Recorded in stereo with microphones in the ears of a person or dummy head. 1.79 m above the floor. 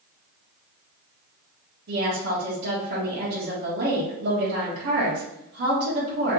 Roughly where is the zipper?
No zipper in this recording.